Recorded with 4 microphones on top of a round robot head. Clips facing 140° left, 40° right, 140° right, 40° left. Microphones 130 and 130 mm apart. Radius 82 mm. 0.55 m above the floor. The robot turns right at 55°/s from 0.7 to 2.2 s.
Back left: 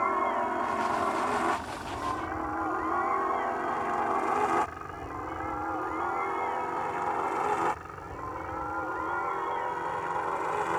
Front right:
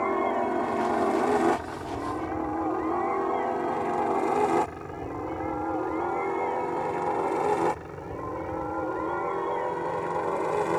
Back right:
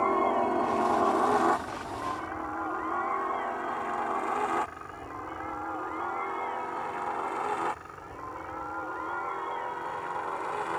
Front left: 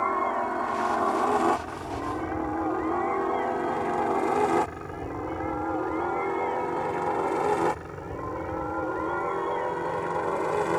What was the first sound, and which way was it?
A helicopter, 75° right.